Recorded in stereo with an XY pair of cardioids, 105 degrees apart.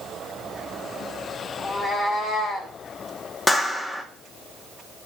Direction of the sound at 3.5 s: 25° left.